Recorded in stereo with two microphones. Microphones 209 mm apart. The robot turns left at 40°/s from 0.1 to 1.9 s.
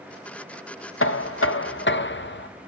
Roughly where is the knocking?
Left.